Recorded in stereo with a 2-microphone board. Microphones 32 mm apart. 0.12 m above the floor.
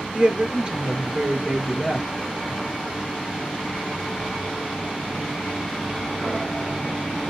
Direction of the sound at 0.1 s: 25° right (ahead or behind).